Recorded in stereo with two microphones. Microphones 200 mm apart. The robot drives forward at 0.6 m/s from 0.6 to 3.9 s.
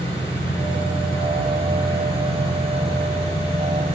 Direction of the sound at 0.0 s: 15° left (ahead or behind).